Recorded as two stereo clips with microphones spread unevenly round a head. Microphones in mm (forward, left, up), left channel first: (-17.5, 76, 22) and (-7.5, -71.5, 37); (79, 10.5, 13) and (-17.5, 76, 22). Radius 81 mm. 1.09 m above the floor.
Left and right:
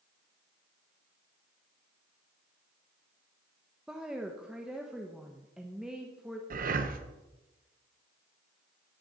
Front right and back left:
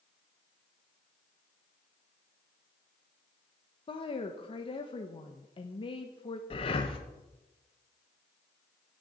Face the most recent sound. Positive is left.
turn(degrees=-70)